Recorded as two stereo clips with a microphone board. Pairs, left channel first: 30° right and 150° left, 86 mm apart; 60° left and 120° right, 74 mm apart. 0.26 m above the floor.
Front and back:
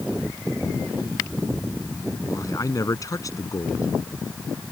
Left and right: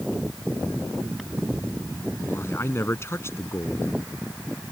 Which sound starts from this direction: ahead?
A man speaking, at 2.2 s.